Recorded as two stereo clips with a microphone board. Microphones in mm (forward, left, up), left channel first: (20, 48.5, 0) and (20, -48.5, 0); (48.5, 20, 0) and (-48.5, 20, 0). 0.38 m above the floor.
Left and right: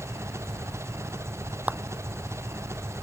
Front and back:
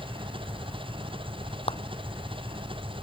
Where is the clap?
15° right.